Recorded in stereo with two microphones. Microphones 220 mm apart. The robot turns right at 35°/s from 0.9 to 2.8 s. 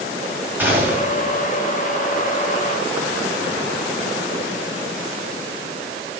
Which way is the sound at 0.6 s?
10° right (ahead or behind).